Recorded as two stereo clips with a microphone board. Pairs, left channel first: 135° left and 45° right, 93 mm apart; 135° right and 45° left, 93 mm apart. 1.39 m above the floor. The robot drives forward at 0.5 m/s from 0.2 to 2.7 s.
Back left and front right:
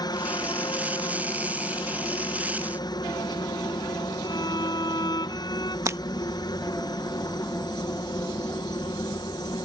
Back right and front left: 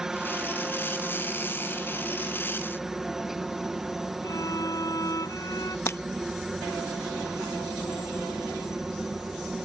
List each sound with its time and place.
0.0 s a helicopter: 130° left
4.2 s a violin: 175° left
5.9 s breaking glass: 85° right